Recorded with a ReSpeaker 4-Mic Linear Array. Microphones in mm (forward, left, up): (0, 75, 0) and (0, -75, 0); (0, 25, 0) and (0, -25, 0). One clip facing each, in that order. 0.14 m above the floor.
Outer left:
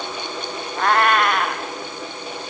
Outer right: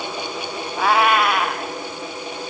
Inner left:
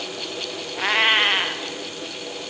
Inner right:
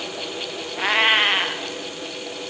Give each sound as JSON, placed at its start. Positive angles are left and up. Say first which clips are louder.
{"t": 0.8, "sound": "a cat meowing", "louder": "outer right 1 dB, inner right 1 dB", "side_deg": -5, "distance_m": 1.7}